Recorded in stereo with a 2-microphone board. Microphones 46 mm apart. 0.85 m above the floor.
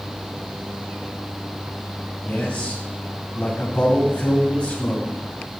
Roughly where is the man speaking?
Left.